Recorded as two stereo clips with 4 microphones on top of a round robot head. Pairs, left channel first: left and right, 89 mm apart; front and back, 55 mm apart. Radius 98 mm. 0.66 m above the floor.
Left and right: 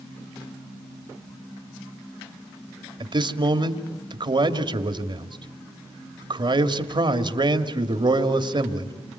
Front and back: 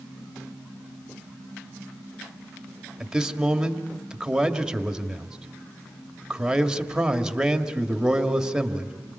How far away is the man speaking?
About 2.0 m.